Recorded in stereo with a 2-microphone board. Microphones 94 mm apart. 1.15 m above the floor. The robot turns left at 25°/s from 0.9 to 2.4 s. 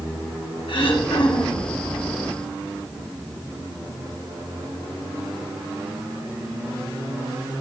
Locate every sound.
0.7 s throat clearing: 65° left (ahead or behind), 2.5 m; by 1.7 s 45° left (ahead or behind), 2.5 m